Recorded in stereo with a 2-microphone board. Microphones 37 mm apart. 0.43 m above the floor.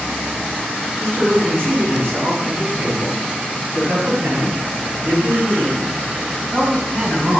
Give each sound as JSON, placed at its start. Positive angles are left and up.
{"t": 1.0, "sound": "a man speaking", "side_deg": -70, "distance_m": 5.0}